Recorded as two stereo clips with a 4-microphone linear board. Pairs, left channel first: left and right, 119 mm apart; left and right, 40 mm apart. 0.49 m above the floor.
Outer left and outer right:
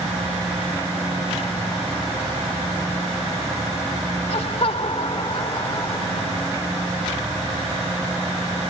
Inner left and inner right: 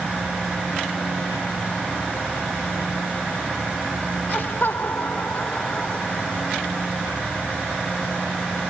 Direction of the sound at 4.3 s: 60° left (ahead or behind).